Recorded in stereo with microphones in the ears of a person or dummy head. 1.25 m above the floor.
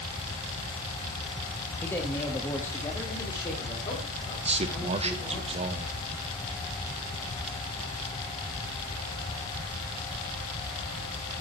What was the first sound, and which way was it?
A man speaking, 15° left (ahead or behind).